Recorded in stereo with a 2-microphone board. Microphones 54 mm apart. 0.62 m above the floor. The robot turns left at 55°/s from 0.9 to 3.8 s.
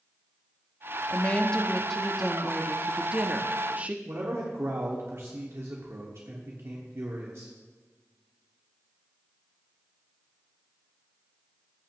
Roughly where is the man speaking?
Right.